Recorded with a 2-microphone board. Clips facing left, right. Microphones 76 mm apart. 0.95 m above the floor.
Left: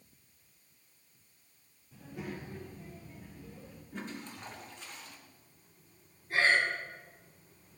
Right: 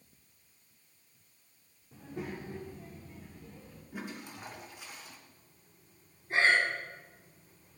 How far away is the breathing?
About 2.5 m.